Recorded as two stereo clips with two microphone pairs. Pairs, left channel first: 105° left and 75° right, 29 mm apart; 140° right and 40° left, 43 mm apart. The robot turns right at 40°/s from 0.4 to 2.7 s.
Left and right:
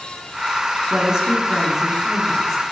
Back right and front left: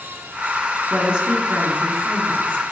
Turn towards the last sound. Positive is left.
turn(degrees=40)